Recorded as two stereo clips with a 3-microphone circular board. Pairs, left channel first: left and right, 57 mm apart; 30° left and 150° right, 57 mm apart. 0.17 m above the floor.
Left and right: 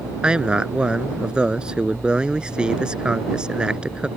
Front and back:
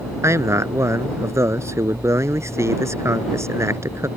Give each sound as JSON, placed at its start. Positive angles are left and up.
{"t": 0.2, "sound": "a man speaking", "azimuth_deg": -165}